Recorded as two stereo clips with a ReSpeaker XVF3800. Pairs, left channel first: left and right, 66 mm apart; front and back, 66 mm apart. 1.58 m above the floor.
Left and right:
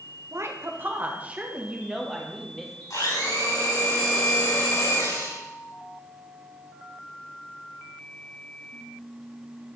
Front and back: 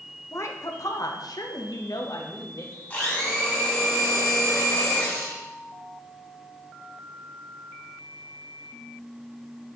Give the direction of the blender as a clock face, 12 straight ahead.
10 o'clock.